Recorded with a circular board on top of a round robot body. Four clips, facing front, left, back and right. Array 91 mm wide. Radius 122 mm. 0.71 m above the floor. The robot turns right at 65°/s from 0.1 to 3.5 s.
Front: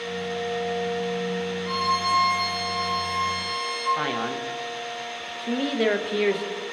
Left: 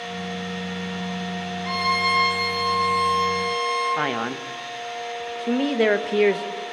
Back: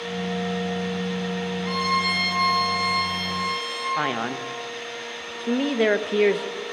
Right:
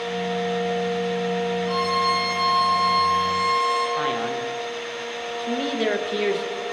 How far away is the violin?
About 8 m.